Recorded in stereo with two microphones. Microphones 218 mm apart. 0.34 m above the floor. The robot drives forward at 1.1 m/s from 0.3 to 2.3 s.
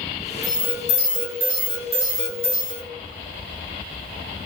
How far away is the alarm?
About 4.5 m.